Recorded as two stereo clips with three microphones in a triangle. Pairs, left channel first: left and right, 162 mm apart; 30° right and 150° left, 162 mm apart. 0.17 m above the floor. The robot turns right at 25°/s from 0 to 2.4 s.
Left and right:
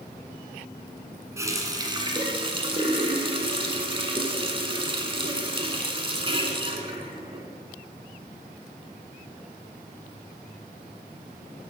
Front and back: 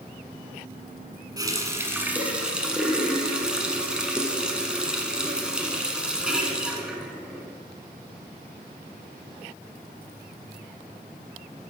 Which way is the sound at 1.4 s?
155° right.